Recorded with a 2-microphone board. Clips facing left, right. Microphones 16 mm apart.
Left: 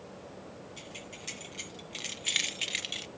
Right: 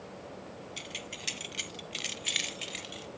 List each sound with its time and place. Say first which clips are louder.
0.8 s keys jangling: right 7 dB; 55° right (ahead or behind), 1.9 m; by 3.1 s 45° left (ahead or behind), 1.1 m